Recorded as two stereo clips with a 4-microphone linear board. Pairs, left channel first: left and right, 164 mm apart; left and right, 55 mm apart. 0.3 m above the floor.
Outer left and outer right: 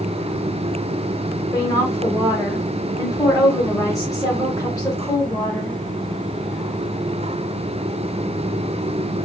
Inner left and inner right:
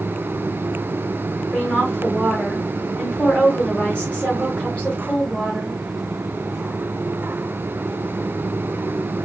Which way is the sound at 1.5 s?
20° left (ahead or behind).